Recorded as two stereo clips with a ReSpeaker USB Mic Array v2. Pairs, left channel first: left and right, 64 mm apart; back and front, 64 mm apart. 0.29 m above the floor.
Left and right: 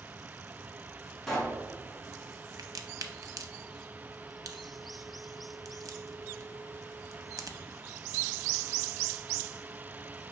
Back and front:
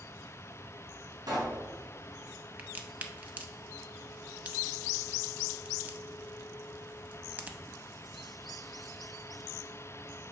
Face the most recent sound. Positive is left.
turn(degrees=-65)